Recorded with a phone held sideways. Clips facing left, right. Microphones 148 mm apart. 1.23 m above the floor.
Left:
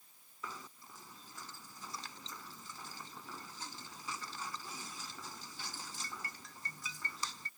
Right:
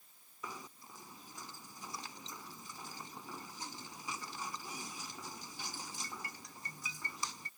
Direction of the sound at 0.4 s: 15° right (ahead or behind).